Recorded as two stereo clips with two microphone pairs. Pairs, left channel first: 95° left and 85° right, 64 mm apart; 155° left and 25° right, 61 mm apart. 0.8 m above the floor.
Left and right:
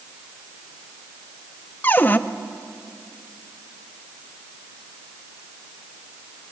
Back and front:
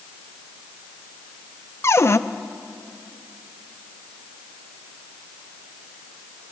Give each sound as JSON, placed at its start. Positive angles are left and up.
{"t": 1.8, "sound": "a cupboard door", "azimuth_deg": 150, "distance_m": 0.8}